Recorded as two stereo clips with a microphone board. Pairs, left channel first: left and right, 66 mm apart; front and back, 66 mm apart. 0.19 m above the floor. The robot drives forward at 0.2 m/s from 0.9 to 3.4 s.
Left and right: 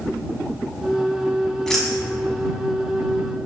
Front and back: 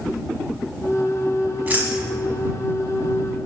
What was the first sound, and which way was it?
Keys jangling, 165° left.